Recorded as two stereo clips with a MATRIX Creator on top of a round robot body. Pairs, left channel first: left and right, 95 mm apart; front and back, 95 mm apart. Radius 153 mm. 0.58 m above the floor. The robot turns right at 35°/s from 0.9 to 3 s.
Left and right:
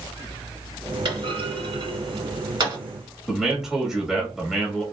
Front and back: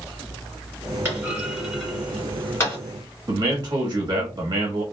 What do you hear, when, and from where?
1.1 s a clunk: 115° right, 2 m; by 2.8 s 55° right, 2 m
3.3 s a man speaking: 175° right, 1.1 m